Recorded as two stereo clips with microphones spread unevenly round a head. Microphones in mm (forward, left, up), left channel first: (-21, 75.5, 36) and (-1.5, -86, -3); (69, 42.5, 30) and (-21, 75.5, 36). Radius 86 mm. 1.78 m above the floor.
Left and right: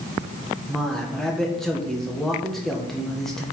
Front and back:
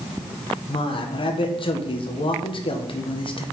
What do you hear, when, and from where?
0.7 s a man speaking: 10° left, 1.7 m